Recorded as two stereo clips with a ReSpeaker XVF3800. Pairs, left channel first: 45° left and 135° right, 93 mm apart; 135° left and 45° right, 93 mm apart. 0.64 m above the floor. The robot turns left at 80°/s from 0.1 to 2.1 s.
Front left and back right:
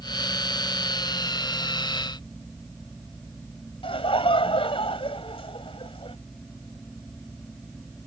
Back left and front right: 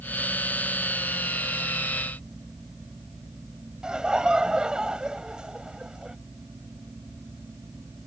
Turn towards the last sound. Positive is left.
turn(degrees=35)